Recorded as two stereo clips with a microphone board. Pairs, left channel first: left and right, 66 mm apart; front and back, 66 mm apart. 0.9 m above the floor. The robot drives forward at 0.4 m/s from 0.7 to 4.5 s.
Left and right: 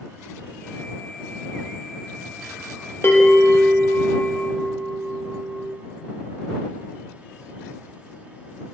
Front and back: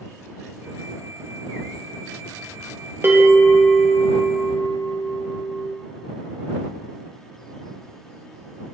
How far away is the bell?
About 1.0 m.